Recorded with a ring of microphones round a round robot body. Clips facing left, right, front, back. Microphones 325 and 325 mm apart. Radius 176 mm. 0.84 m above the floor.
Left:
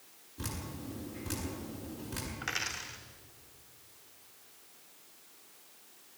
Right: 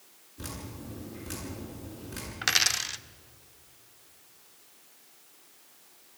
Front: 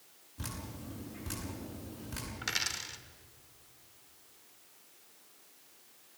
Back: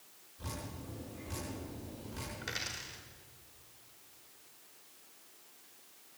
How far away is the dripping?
About 8.5 m.